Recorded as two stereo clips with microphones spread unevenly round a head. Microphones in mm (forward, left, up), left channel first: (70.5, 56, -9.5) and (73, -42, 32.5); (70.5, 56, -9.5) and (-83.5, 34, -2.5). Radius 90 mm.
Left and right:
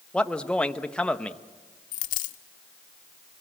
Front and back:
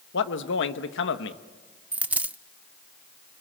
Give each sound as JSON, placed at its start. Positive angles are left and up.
{"t": 0.1, "sound": "a man speaking", "azimuth_deg": 10, "distance_m": 1.2}
{"t": 1.9, "sound": "a dropped coin", "azimuth_deg": 110, "distance_m": 0.8}